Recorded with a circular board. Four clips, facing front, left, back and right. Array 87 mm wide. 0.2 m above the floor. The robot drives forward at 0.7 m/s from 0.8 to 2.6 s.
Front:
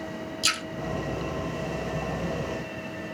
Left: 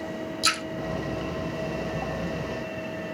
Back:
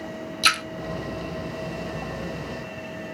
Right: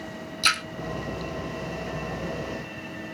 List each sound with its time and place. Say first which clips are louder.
0.4 s a splash: right 3 dB, back 9 dB; 155° right, 1.1 m